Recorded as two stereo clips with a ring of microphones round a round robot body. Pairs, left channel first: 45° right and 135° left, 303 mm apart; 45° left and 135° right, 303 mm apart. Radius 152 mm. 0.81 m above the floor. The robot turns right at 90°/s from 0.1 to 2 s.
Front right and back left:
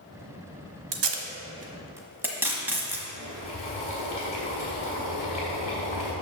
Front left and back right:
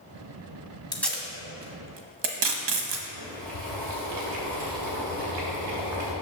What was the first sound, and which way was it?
Tape being pulled, 120° left.